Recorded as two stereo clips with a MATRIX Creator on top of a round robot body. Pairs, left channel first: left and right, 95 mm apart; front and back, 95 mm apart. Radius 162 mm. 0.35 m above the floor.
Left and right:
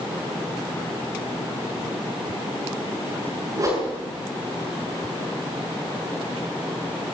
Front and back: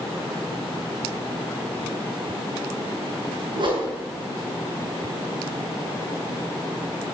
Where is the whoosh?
145° right, 6.5 m.